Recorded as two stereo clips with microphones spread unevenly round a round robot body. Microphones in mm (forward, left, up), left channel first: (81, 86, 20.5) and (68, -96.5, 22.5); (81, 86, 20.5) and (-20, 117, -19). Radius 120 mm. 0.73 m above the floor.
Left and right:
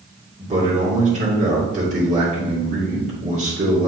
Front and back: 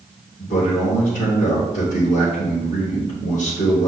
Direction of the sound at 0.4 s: 50° right.